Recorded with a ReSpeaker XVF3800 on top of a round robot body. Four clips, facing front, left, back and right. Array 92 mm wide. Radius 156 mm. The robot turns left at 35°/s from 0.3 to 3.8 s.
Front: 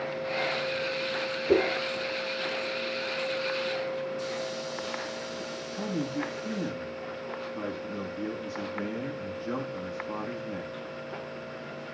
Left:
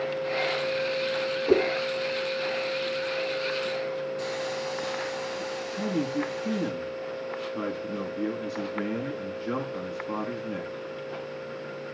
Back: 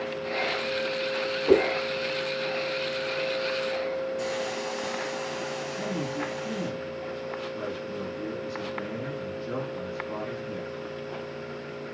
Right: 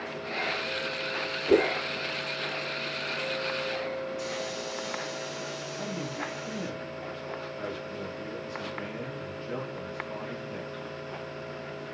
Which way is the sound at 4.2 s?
140° left.